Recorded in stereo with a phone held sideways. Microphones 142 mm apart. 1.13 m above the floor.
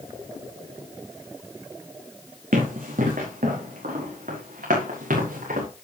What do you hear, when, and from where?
2.5 s running footsteps: 75° right (ahead or behind), 4.5 m; by 5.7 s 80° right, 6 m